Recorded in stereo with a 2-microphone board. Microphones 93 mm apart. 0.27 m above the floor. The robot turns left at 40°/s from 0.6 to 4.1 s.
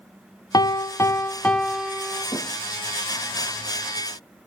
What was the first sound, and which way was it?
A piano, 50° left.